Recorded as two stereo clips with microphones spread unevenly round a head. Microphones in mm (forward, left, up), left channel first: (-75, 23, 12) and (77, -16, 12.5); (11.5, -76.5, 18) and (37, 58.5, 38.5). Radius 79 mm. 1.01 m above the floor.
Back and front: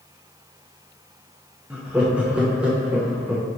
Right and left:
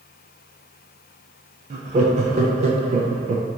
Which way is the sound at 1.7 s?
65° left.